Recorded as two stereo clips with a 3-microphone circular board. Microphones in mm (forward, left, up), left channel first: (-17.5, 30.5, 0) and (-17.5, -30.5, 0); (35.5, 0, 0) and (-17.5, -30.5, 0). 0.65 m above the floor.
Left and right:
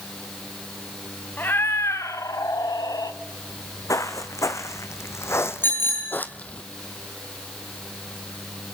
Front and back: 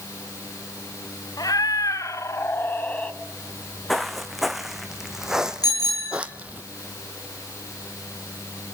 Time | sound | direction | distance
1.4 | a cat meowing | 35° left | 2.5 m
3.5 | footsteps | 120° left | 2.5 m
5.6 | a bicycle bell | 35° left | 9.5 m